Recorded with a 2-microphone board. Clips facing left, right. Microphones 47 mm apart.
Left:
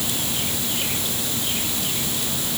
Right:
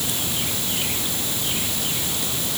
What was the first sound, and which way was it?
Only background noise.